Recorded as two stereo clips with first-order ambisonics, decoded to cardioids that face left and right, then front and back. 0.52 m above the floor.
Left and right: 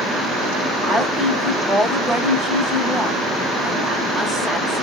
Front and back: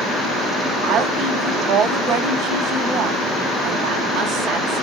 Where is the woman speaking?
170° right, 1.0 m.